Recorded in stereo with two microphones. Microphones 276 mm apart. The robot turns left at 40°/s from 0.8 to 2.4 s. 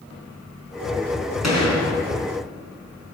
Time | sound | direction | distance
1.4 | a gunshot | 70° left (ahead or behind) | 4 m